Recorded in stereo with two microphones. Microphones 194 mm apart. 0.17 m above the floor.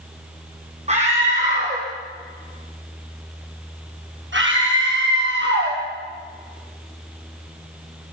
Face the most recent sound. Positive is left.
turn(degrees=-60)  # may be behind; listen again after turning